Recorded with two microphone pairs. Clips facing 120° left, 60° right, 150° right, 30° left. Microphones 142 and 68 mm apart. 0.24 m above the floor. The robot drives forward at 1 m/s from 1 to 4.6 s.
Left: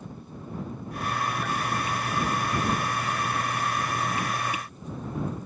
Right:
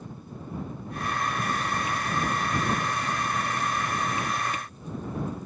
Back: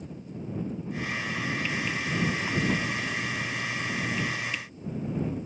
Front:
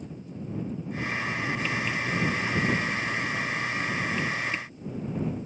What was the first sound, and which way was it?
Only background noise.